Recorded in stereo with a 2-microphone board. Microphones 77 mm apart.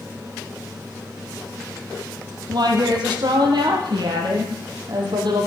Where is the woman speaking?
60° right (ahead or behind), 3.5 m; by 5.5 s 70° right (ahead or behind), 4.5 m.